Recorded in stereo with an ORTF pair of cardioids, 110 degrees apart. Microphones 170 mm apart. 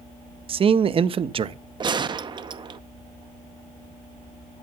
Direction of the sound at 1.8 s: 30° right.